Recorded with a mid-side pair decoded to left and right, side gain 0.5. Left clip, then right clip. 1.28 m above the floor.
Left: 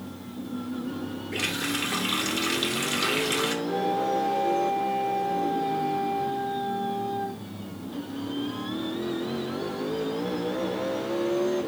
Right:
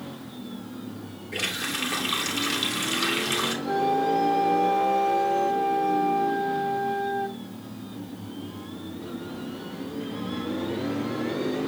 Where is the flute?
50° right, 6.5 m.